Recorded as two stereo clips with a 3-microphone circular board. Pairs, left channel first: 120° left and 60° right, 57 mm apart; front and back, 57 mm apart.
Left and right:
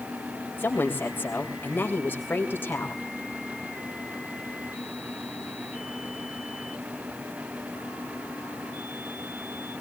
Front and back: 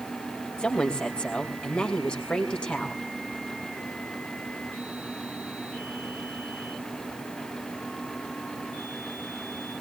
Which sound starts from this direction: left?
A woman speaking, at 0.6 s.